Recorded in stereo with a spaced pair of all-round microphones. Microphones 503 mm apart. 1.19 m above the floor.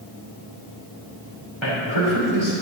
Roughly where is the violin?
No violin in this recording.